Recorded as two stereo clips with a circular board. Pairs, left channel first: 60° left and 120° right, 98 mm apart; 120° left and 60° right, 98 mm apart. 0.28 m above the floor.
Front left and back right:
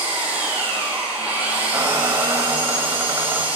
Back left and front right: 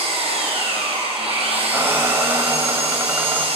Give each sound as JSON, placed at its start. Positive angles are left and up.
{"t": 0.0, "sound": "an engine running", "azimuth_deg": -45, "distance_m": 2.5}
{"t": 1.7, "sound": "a squeak", "azimuth_deg": -100, "distance_m": 0.5}